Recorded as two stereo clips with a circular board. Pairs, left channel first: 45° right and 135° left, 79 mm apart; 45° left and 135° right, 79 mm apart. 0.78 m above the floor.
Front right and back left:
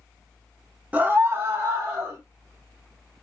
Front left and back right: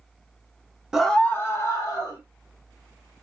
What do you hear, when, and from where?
0.9 s a scream: 165° left, 0.5 m; by 2.2 s 80° left, 1.5 m